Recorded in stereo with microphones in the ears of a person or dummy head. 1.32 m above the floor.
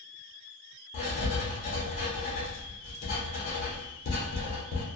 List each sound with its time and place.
0.9 s writing: 40° left (ahead or behind), 1.0 m